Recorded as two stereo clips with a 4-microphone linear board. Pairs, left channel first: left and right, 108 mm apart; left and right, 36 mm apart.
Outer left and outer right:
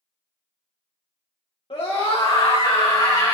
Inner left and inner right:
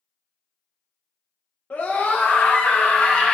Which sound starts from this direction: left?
A scream, at 1.7 s.